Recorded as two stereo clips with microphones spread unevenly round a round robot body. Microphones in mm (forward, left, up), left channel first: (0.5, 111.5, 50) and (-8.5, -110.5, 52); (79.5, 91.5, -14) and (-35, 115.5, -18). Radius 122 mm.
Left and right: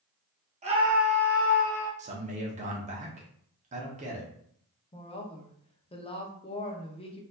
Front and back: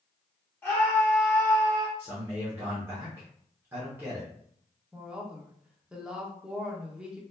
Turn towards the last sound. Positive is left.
turn(degrees=100)